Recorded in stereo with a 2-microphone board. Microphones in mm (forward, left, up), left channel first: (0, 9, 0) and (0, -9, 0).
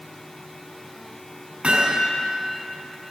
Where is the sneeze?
I don't hear a sneeze.